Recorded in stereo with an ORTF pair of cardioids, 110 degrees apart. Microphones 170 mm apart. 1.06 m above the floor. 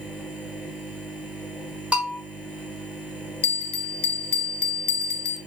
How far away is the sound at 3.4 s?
About 0.5 m.